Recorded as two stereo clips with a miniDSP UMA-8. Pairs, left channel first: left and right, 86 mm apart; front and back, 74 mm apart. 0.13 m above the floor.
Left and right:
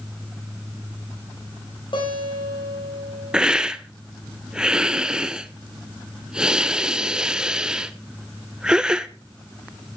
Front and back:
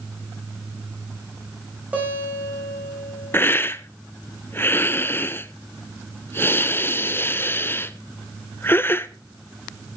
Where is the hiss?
15° right, 0.7 m.